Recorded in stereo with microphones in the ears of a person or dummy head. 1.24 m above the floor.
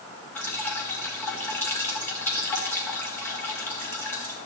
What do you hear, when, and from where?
0.3 s dripping: 10° left (ahead or behind), 1.6 m